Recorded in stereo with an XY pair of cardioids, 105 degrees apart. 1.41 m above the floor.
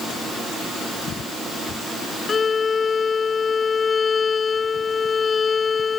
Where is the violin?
35° left.